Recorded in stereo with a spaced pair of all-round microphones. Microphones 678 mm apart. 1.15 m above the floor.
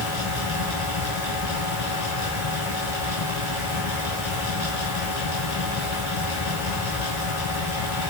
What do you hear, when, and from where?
0.0 s a fan: 75° left (ahead or behind), 6 m